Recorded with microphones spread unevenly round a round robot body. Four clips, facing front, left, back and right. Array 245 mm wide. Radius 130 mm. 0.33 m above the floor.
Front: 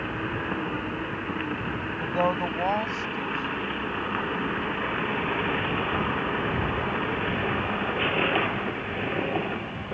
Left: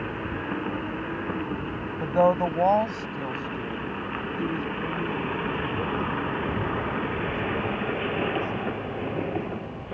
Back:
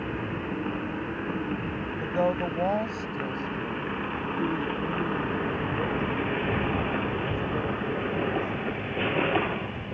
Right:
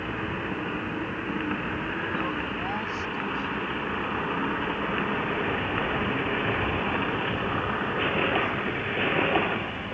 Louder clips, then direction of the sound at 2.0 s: Left 9 dB, front 1 dB; 80° left.